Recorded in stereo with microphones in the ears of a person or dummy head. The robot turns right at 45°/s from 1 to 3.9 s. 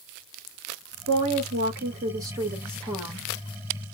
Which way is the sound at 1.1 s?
85° right.